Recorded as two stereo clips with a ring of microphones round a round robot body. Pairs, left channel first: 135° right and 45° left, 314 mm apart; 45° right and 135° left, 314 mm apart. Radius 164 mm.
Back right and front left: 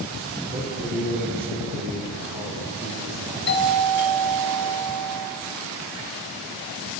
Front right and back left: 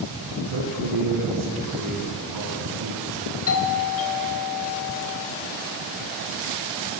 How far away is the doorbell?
About 3 m.